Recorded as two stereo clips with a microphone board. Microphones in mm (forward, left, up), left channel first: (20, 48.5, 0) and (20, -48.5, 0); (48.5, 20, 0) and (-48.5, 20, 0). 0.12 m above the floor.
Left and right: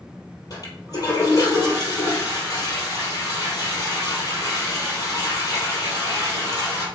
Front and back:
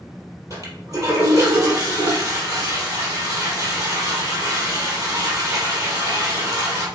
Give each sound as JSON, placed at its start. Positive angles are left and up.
{"t": 0.5, "sound": "a toilet flushing", "azimuth_deg": 135, "distance_m": 3.5}